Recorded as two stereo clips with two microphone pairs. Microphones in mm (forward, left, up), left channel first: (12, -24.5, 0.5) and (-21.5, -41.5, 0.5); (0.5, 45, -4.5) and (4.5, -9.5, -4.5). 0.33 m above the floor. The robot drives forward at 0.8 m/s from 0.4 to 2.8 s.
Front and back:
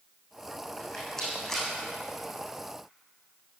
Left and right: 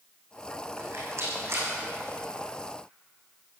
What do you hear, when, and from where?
0.8 s a rattle: 50° right, 7 m; by 1.7 s 55° right, 7 m